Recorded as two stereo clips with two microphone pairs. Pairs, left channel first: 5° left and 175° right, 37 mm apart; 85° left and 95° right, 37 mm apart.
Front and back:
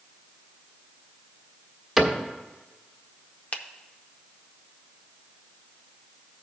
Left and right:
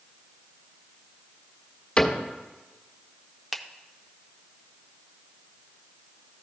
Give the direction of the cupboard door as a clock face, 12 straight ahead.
9 o'clock.